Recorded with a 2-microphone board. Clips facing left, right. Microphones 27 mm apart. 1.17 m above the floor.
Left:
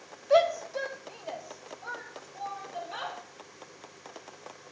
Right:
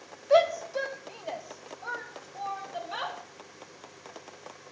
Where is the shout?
5° right (ahead or behind), 1.0 m; by 3.2 s 20° right (ahead or behind), 2.5 m.